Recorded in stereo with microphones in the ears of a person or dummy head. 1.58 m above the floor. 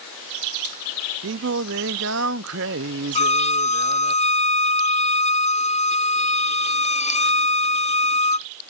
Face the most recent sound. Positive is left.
turn(degrees=25)  # may be behind; listen again after turning